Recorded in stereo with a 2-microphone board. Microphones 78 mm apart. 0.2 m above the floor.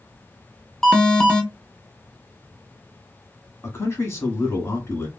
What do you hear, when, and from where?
0.8 s an alarm: 10° left (ahead or behind), 0.7 m
3.6 s a man speaking: 35° left (ahead or behind), 1.3 m